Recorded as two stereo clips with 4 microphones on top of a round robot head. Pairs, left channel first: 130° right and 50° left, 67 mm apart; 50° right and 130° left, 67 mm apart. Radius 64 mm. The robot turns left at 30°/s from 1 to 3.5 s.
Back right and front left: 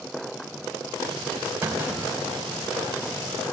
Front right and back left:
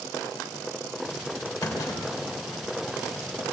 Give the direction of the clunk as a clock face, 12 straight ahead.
12 o'clock.